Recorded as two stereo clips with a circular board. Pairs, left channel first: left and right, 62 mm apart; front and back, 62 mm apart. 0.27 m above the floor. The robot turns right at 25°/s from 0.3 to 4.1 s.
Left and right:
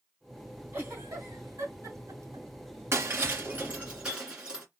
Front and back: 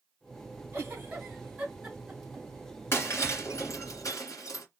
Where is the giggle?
135° right, 2.5 m; by 2.5 s 90° right, 2.5 m.